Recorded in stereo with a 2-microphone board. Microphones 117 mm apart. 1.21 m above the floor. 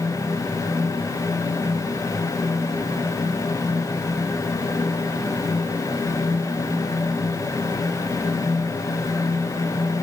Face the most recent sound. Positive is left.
No sound to turn to.